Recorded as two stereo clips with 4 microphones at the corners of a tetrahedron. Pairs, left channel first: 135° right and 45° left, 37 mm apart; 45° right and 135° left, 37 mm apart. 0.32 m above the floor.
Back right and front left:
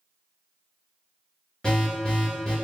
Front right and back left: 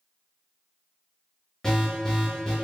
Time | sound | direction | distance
1.6 | an alarm | 100° right | 1.5 m